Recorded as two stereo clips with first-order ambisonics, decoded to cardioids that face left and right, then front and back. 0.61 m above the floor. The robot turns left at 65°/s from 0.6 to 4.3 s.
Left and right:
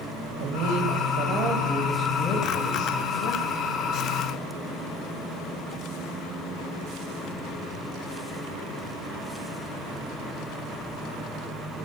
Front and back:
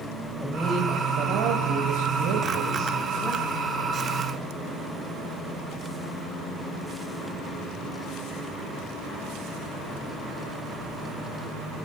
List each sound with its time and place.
0.4 s a woman speaking: 95° right, 3 m; by 3.6 s 70° left, 3 m